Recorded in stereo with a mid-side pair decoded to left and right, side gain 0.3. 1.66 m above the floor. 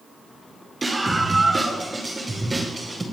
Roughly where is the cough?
I don't hear a cough.